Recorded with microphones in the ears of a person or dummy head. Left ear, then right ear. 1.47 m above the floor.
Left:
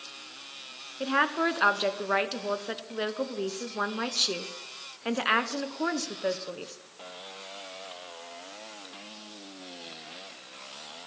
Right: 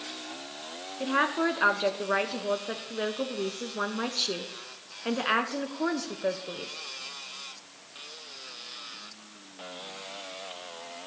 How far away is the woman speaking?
About 0.8 m.